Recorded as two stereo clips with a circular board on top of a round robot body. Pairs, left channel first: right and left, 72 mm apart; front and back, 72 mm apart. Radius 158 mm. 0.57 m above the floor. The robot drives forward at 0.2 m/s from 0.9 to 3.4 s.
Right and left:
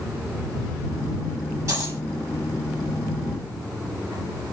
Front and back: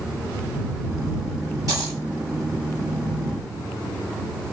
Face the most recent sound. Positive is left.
turn(degrees=145)